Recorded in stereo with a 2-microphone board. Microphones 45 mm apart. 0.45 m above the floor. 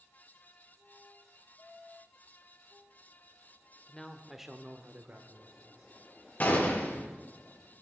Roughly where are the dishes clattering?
No dishes clattering in this recording.